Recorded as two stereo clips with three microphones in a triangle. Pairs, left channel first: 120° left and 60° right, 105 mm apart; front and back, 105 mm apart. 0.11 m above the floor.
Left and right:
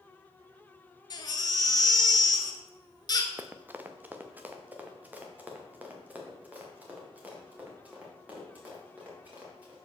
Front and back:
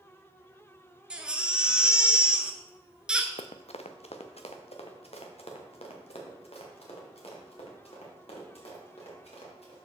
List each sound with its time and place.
1.1 s a baby crying: 105° left, 0.9 m
3.4 s running footsteps: 10° left, 0.5 m; by 9.8 s 15° left, 5 m